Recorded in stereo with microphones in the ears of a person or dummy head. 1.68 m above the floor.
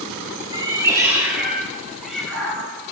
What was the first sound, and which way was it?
A cat meowing, 20° right (ahead or behind).